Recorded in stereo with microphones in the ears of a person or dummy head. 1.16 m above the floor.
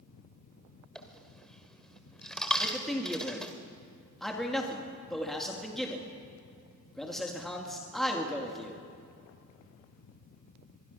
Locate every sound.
0.9 s a dropped coin: 5° left (ahead or behind), 1.6 m
2.6 s a man speaking: centre (ahead or behind), 2.5 m